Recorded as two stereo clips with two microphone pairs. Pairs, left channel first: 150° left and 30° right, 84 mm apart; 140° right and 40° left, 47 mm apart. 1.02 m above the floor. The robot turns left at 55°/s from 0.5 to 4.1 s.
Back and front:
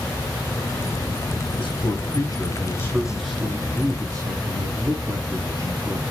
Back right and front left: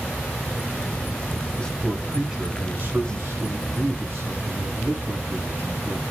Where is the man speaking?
150° left, 6 m; by 6.0 s 10° left, 6 m.